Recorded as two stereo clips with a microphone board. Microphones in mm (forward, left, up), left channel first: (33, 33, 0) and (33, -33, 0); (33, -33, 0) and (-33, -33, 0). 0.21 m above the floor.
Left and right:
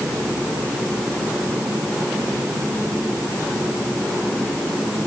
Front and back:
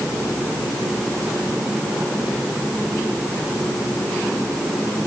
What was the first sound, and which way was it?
Only background noise.